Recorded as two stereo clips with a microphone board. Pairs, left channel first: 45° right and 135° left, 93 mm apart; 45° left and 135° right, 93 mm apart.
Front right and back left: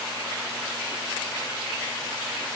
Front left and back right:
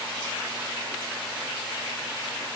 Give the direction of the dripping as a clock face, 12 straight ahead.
No dripping in this recording.